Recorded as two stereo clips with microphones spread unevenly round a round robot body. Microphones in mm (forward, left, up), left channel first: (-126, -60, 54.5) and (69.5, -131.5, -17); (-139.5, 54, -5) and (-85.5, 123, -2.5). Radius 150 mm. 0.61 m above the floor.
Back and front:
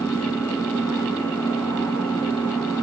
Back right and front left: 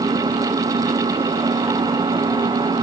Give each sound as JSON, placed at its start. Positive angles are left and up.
{"t": 0.0, "sound": "an engine running", "azimuth_deg": 75}